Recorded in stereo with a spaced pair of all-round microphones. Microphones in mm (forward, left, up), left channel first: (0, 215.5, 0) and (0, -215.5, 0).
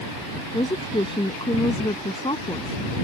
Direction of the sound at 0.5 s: 10° left (ahead or behind).